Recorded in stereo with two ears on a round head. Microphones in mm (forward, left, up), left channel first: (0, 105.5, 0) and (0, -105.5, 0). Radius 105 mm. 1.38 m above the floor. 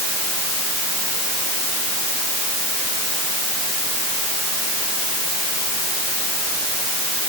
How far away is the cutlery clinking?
No cutlery clinking in this recording.